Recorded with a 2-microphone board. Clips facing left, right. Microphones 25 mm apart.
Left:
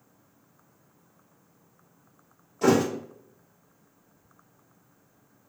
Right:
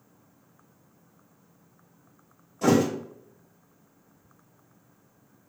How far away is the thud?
About 1.6 m.